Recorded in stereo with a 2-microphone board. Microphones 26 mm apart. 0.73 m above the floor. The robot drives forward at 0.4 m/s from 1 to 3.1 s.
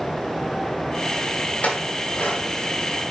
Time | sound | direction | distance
1.6 | a clink | 85° left | 2.5 m